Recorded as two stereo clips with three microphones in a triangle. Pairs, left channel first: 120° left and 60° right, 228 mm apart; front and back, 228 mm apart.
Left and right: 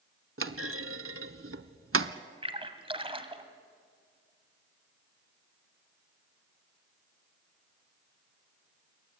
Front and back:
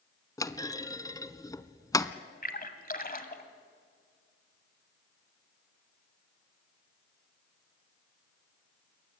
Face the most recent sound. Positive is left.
turn(degrees=-10)